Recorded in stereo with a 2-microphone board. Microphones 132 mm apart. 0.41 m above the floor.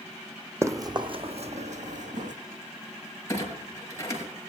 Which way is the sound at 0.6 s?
20° right (ahead or behind).